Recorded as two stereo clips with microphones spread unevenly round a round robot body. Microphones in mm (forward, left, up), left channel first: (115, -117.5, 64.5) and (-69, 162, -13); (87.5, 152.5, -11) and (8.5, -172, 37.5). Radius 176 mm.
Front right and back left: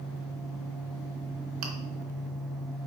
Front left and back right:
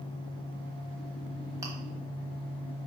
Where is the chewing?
Straight behind, 1.3 m.